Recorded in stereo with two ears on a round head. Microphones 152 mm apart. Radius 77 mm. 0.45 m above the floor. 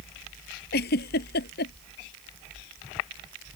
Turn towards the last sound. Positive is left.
turn(degrees=65)  # may be behind; listen again after turning